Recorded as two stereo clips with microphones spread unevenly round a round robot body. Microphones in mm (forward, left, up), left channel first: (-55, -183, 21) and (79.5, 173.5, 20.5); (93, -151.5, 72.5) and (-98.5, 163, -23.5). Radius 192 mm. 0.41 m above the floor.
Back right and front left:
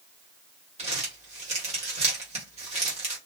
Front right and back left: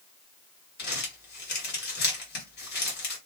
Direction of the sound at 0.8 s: 10° left.